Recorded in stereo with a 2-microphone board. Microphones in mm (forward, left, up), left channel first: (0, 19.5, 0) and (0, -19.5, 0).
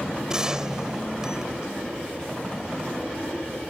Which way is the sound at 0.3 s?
15° right (ahead or behind).